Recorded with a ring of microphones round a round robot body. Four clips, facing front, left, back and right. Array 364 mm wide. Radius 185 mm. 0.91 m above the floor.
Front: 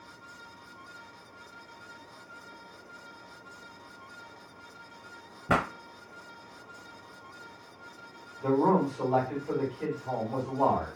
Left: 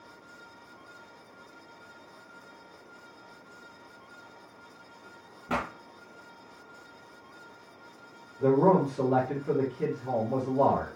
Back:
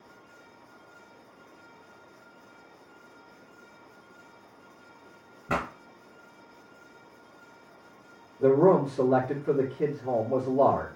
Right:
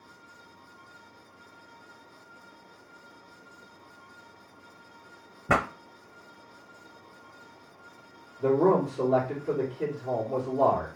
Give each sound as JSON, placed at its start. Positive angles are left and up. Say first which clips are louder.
{"t": 5.5, "sound": "a pop", "louder": "right 6 dB, front 3 dB", "azimuth_deg": -65, "distance_m": 0.6}
{"t": 8.4, "sound": "a man speaking", "louder": "even, back 5 dB", "azimuth_deg": 155, "distance_m": 2.5}